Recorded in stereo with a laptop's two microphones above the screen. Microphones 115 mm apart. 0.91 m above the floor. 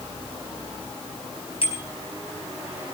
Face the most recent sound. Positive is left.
turn(degrees=55)  # may be behind; listen again after turning